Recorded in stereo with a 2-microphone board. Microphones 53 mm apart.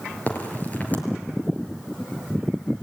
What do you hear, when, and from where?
0.3 s a crack: 30° left (ahead or behind), 4.5 m